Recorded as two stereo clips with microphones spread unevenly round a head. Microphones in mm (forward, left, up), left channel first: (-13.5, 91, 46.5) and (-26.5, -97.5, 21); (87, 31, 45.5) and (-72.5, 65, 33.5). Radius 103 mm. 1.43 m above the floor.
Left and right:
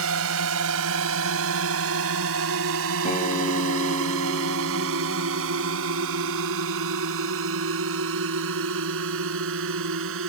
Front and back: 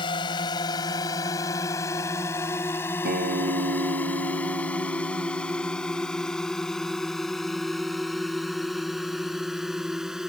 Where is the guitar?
140° left.